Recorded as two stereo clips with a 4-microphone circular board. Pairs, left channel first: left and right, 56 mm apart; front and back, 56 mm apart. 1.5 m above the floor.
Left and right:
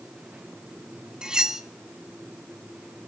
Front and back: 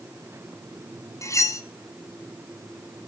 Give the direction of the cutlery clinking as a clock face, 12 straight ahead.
12 o'clock.